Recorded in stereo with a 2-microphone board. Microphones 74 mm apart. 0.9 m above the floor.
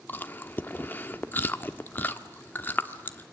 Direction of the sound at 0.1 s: 25° left (ahead or behind).